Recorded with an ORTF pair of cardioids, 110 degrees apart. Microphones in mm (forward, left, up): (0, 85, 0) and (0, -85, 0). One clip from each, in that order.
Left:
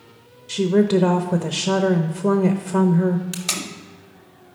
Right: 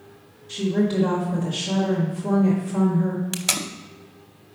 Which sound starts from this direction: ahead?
Tape being pulled, at 3.3 s.